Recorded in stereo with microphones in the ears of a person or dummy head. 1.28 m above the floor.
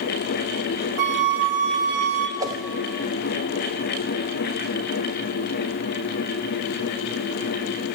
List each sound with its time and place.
1.0 s a flute: 75° right (ahead or behind), 2 m
2.4 s a whoosh: 20° right (ahead or behind), 0.7 m